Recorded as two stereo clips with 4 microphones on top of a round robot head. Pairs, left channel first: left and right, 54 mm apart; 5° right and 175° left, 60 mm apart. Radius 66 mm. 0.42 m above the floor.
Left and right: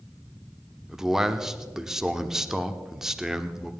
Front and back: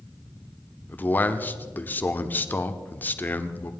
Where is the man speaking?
15° right, 1.1 m.